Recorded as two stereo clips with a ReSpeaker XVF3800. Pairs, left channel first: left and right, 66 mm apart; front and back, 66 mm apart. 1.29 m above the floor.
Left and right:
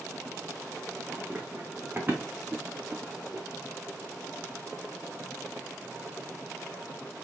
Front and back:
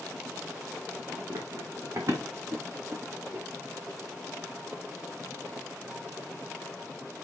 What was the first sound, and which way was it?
Running footsteps, 160° right.